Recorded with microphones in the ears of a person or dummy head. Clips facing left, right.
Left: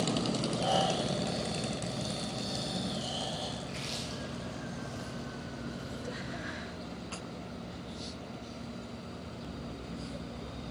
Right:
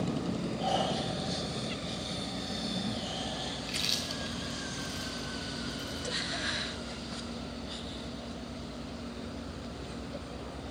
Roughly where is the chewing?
Right.